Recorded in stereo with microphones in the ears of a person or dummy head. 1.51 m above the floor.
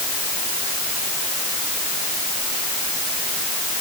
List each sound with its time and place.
Only background noise.